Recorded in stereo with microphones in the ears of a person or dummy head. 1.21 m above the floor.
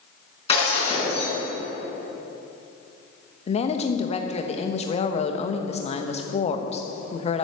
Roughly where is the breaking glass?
Left.